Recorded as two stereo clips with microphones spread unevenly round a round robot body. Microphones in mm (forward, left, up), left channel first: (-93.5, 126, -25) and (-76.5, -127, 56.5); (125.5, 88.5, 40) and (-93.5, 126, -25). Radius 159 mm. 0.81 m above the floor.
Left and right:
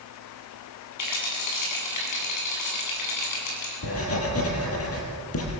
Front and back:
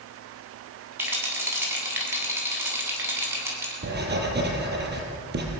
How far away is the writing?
About 5.5 m.